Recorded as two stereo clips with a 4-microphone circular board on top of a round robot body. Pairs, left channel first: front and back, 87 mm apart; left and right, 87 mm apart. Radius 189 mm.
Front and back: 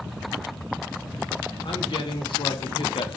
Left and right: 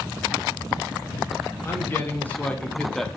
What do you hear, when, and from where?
1.6 s a man speaking: 25° left, 2.5 m; by 3.1 s straight ahead, 1.2 m